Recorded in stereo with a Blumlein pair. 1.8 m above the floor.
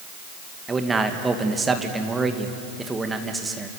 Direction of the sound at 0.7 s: 10° right.